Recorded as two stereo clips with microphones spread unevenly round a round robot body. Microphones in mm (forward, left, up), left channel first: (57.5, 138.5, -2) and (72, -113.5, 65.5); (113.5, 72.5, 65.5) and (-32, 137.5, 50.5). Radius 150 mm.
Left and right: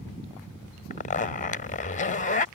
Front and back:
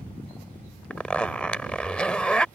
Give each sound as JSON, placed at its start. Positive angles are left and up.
{"t": 0.9, "sound": "a zipper", "azimuth_deg": 60}